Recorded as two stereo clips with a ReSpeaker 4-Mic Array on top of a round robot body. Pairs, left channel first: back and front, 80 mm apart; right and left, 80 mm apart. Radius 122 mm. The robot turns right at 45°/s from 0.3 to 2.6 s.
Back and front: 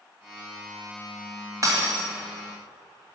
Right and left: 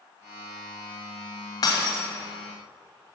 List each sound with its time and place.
1.6 s breaking glass: 50° right, 1.7 m; by 2.0 s 30° right, 1.7 m